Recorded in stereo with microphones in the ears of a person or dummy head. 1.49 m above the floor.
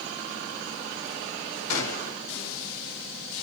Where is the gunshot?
70° left (ahead or behind), 1.5 m.